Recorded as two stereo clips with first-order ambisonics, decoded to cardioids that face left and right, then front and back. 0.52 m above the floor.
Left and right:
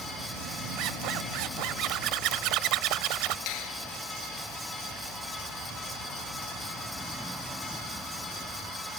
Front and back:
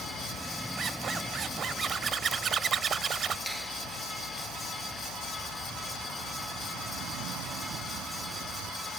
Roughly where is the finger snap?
Left.